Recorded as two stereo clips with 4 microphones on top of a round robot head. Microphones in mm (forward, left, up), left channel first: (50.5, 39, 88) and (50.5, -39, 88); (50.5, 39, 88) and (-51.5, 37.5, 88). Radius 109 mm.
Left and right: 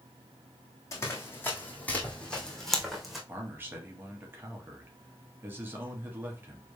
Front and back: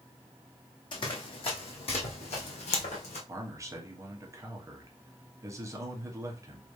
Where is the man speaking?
135° right, 1.4 m.